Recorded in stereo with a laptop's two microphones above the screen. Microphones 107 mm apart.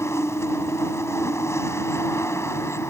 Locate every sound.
0.0 s a machine running: 25° left (ahead or behind)